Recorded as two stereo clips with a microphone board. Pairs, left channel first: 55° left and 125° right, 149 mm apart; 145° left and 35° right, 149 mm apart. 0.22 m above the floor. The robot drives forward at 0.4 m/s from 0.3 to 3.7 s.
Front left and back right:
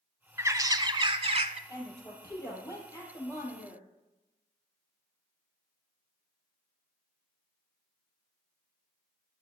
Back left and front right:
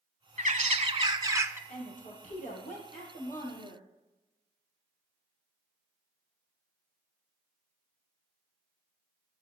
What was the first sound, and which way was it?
A bird, 55° right.